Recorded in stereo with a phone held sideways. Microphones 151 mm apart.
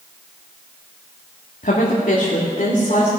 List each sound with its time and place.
1.6 s a woman speaking: 70° left (ahead or behind), 1.5 m; by 3.1 s 55° left (ahead or behind), 2.5 m